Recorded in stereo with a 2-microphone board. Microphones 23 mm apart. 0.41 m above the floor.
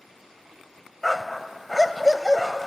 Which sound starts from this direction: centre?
A dog barking, at 1.0 s.